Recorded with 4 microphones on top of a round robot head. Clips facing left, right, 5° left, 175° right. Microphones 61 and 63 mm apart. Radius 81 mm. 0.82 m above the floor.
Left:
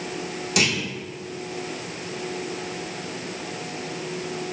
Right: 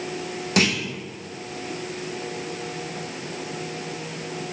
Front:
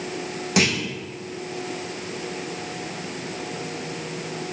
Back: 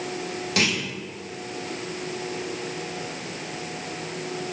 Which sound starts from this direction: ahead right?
A clunk, at 0.6 s.